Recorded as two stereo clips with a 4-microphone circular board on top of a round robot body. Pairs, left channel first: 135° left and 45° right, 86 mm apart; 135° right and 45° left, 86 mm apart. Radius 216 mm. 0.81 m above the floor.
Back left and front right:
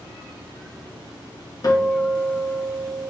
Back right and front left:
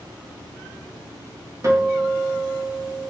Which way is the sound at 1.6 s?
95° left.